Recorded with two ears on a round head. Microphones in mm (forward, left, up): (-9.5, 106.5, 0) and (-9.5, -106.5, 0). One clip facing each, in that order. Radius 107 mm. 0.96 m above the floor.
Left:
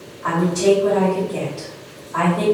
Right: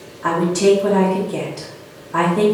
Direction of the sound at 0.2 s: 55° right (ahead or behind).